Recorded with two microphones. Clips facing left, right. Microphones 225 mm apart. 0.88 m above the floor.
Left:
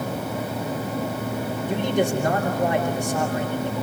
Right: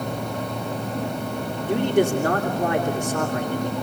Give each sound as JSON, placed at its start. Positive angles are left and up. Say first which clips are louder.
{"t": 1.7, "sound": "a man speaking", "louder": "right 4 dB", "side_deg": -70, "distance_m": 3.0}